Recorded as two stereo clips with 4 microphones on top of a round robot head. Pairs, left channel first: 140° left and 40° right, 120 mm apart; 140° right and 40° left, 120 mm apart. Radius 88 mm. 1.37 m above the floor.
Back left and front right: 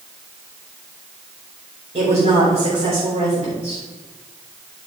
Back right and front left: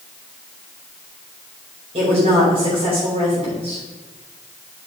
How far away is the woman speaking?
About 6 m.